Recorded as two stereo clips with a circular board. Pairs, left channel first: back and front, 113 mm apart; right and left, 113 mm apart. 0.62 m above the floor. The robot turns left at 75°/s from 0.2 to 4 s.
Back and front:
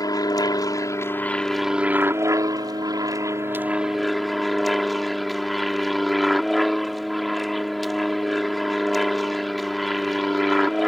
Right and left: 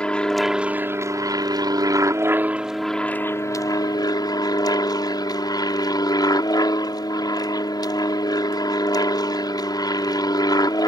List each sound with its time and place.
0.0 s an aircraft: 165° right; by 10.9 s 90° right